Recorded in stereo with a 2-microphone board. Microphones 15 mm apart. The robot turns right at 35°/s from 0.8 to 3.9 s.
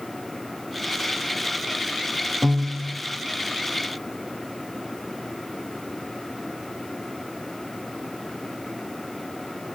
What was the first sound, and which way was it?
A piano, 40° right (ahead or behind).